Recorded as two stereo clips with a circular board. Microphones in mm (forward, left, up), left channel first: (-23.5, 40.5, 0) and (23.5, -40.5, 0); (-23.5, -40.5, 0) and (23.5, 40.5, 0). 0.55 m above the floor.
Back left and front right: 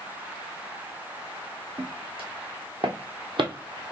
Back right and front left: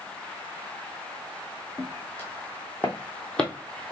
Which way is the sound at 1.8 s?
55° right.